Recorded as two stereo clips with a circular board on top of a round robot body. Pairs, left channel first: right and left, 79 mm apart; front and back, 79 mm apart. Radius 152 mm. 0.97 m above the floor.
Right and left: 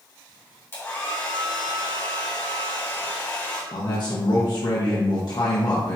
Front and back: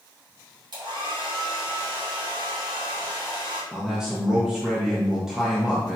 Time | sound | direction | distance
0.7 | a hair dryer | 150° right | 2.5 m
3.7 | a man speaking | 95° right | 1.7 m